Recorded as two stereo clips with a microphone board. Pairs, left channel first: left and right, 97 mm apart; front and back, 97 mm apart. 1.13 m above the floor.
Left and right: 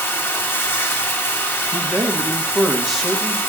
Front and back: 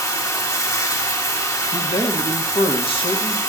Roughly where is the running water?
Ahead left.